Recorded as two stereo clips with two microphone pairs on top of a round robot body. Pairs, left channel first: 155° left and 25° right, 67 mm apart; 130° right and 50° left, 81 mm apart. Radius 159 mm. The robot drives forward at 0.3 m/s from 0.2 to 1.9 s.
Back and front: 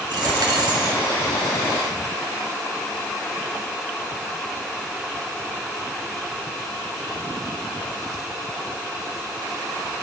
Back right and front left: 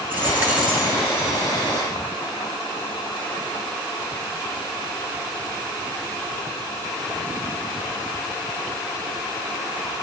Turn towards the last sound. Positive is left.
turn(degrees=-95)